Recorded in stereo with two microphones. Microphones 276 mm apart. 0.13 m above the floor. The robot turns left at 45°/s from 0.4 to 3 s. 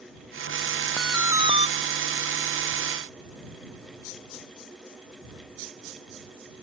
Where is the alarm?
10° left; by 1.7 s 25° right.